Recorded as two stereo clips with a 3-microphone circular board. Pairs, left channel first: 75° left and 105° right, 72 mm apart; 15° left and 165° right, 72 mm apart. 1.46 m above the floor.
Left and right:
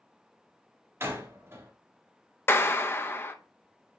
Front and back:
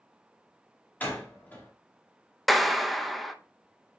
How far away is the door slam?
About 2.5 m.